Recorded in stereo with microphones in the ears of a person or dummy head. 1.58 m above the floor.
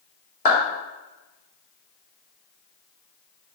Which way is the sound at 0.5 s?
45° left (ahead or behind).